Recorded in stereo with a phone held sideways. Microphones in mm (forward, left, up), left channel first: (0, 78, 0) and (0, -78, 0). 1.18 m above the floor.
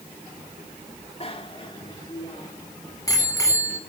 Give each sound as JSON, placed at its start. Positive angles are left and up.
{"t": 1.2, "sound": "a bicycle bell", "side_deg": 40, "distance_m": 2.0}